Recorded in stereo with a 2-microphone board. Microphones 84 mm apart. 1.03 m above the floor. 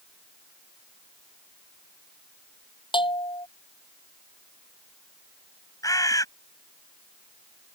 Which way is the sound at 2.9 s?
85° left.